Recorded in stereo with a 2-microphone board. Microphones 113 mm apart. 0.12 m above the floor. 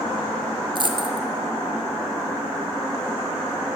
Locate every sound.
0.8 s a dropped coin: 50° right (ahead or behind), 0.7 m